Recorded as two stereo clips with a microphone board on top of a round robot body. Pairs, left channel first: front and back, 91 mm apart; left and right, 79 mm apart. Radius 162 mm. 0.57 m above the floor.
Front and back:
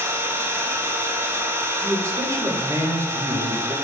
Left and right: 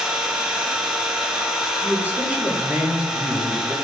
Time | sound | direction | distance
0.0 | an engine running | 170° right | 0.9 m
1.8 | a man speaking | 150° right | 0.9 m